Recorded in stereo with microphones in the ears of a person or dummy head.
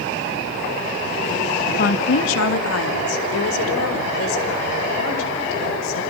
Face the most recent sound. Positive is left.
turn(degrees=75)  # may be behind; listen again after turning